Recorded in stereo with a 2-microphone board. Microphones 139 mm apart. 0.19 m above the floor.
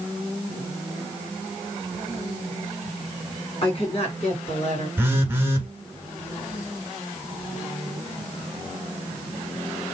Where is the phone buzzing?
15° right (ahead or behind), 1.2 m.